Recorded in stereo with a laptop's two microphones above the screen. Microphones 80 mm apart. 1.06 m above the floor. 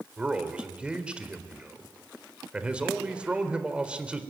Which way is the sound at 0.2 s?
10° right (ahead or behind).